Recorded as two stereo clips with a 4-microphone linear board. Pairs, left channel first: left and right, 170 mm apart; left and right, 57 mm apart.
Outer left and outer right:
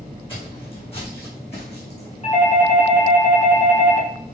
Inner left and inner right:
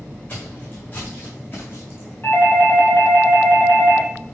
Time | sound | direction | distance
0.3 | footsteps | 30° left (ahead or behind) | 4.5 m
2.2 | a doorbell | 40° left (ahead or behind) | 2.5 m